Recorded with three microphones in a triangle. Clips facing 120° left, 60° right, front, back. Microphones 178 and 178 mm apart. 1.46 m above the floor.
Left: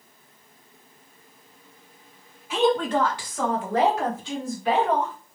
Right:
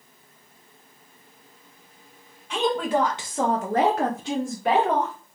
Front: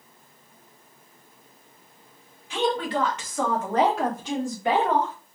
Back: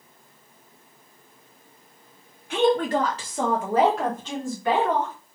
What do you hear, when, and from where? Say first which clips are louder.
2.5 s a woman speaking: left 2 dB, back 5 dB; 155° right, 1.3 m; by 5.1 s 60° right, 1.8 m